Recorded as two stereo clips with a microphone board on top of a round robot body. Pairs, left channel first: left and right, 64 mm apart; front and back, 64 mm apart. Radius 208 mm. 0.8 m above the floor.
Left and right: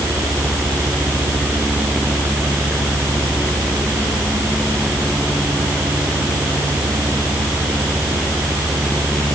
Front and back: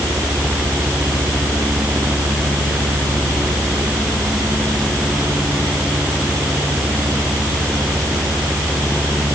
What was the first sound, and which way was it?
Only background noise.